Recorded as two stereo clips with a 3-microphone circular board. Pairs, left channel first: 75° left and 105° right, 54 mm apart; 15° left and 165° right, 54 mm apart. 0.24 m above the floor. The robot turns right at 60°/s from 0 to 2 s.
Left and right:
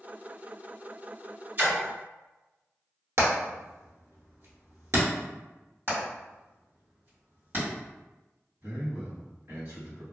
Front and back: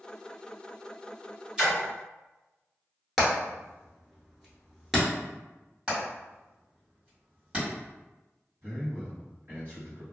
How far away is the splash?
About 1.5 m.